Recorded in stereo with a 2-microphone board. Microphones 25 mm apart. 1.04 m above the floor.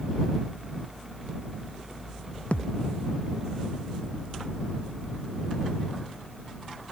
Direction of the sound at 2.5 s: 60° left (ahead or behind).